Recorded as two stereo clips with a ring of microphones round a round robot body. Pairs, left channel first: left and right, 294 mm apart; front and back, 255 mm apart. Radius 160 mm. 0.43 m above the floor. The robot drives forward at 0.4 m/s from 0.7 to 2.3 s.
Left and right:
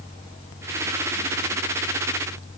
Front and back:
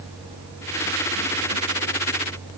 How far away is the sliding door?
No sliding door in this recording.